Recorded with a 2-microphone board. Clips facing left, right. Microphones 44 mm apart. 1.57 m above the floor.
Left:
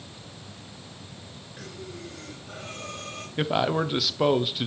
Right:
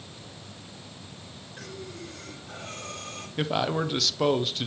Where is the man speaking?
5° left (ahead or behind), 0.6 m.